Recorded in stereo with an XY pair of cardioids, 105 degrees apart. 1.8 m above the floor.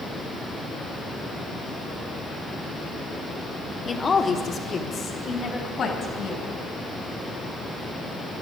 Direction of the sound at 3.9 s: 35° left.